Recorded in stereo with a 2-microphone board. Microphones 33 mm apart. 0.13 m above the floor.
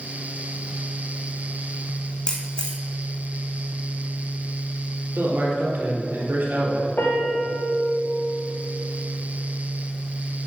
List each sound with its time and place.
2.3 s a camera shutter: 20° left (ahead or behind), 2 m
5.2 s a man speaking: 65° right (ahead or behind), 3.5 m
7.0 s a piano: 90° left, 3.5 m